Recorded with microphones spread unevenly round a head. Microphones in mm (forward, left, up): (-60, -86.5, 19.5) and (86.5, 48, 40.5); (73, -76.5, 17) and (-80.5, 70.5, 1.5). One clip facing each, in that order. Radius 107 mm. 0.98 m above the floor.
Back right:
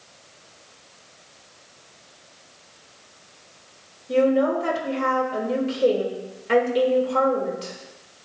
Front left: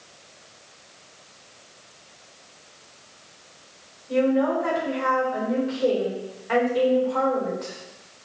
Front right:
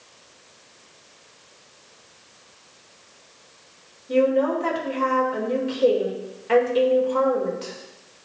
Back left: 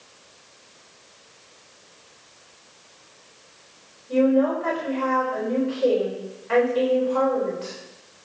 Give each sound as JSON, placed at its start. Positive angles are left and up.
{"t": 4.1, "sound": "a woman speaking", "azimuth_deg": -85, "distance_m": 3.5}